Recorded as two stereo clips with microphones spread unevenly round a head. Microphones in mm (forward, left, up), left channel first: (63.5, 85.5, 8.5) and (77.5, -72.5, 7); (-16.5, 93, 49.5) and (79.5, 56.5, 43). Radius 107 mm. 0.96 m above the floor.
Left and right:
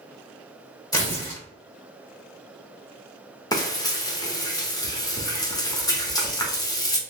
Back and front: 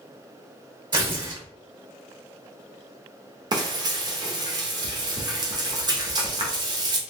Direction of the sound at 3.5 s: 30° left.